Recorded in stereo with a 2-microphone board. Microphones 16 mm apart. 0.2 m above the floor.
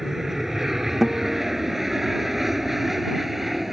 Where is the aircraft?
25° right (ahead or behind); by 3.7 s 15° right (ahead or behind).